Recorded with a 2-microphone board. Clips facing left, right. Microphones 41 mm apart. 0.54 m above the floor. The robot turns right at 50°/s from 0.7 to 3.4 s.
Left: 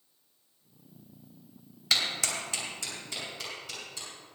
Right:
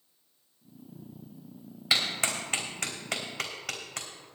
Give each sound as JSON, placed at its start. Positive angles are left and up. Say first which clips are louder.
{"t": 1.9, "sound": "a clap", "louder": "right 1 dB", "side_deg": -20, "distance_m": 3.0}